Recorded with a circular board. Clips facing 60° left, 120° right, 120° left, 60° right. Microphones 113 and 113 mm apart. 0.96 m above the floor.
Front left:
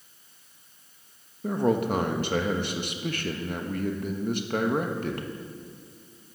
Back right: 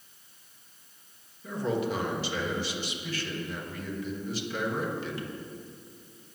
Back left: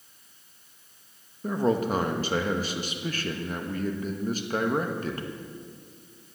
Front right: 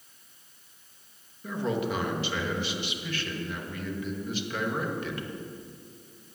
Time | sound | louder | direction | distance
1.4 | a man speaking | front left 5 dB, back left 5 dB | 80° left | 1.3 m